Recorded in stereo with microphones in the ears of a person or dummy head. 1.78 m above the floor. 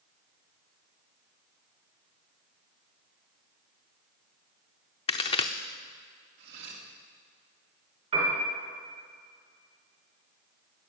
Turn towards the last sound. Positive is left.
turn(degrees=-40)  # may be behind; listen again after turning